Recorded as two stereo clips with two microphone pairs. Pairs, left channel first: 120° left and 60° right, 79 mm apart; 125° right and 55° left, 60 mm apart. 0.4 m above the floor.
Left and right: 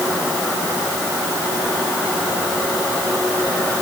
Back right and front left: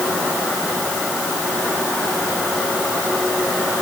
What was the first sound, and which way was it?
Only background noise.